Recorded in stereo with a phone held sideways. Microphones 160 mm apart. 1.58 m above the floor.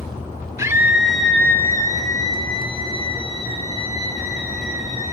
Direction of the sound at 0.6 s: 20° right (ahead or behind).